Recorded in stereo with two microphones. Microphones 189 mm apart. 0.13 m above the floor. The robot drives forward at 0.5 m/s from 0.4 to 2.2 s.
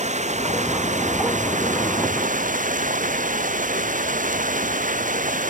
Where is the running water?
40° right (ahead or behind); by 5.5 s 45° right (ahead or behind).